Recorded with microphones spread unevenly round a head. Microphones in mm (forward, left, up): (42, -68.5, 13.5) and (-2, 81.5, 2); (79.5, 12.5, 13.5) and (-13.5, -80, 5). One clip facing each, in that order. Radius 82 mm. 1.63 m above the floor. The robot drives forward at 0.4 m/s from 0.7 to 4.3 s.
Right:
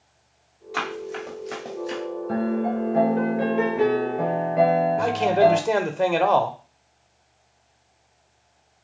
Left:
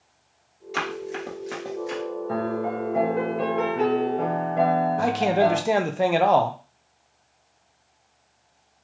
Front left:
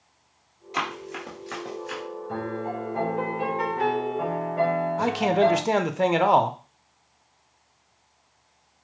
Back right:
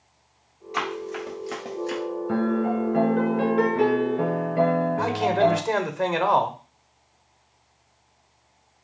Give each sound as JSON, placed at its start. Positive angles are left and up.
{"t": 0.7, "sound": "running footsteps", "azimuth_deg": 70, "distance_m": 1.8}
{"t": 2.3, "sound": "a piano", "azimuth_deg": -145, "distance_m": 1.1}
{"t": 5.0, "sound": "a man speaking", "azimuth_deg": 20, "distance_m": 0.5}